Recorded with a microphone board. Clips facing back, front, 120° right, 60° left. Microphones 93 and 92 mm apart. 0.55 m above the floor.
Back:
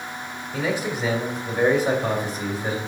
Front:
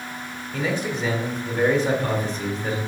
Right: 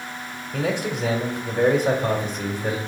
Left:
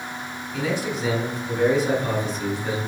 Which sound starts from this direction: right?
A man speaking, at 0.5 s.